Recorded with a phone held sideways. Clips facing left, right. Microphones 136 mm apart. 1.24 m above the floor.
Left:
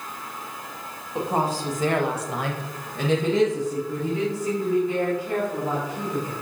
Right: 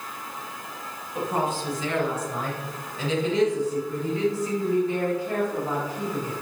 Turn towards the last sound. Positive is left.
turn(degrees=20)  # may be behind; listen again after turning